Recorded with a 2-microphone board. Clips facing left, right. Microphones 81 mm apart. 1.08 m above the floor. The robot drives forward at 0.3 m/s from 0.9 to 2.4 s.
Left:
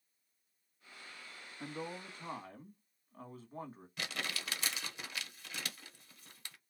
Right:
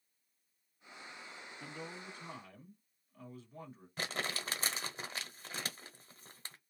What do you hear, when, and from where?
1.6 s a man speaking: 45° left (ahead or behind), 1.3 m; by 3.9 s 40° left (ahead or behind), 1.4 m
4.0 s crumpling: 35° right (ahead or behind), 0.9 m